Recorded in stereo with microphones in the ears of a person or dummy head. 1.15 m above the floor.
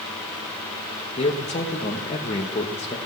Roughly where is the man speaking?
Left.